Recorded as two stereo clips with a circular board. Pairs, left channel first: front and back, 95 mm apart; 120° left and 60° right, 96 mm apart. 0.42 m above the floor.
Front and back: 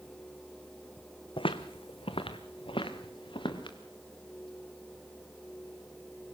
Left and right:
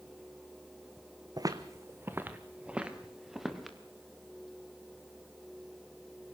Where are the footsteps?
15° right, 1.2 m; by 3.8 s 30° left, 2.5 m.